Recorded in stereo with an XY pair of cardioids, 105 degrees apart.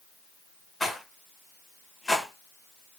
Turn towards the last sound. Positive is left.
turn(degrees=10)